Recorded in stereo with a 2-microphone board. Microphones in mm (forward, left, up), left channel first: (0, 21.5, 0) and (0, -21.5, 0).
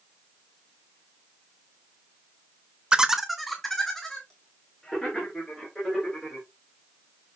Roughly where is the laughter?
Right.